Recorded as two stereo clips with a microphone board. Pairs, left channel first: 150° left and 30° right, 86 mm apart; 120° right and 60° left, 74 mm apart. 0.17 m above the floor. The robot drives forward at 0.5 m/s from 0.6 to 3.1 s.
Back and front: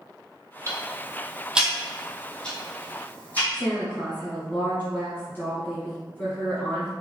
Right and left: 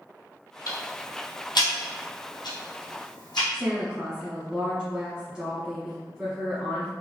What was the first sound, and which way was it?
Ticking, 85° right.